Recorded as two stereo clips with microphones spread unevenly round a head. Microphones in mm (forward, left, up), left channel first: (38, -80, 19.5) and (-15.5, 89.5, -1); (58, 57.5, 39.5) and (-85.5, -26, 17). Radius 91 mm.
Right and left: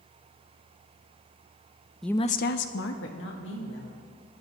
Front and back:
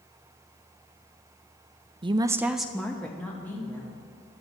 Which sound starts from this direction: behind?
A woman speaking, at 2.0 s.